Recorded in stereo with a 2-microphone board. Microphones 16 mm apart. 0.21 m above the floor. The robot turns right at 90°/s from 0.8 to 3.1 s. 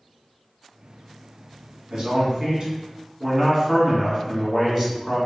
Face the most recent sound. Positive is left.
turn(degrees=-5)